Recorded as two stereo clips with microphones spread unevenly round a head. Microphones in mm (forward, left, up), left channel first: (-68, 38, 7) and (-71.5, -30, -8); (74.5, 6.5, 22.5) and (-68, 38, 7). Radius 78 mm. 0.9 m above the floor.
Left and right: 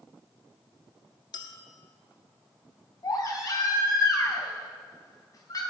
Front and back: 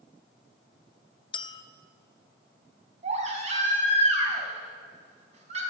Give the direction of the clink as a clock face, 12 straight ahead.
11 o'clock.